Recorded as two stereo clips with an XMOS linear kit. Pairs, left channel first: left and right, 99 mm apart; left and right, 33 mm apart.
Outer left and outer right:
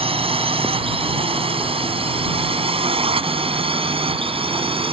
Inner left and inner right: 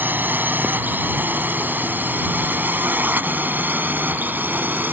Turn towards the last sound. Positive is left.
turn(degrees=-70)  # may be behind; listen again after turning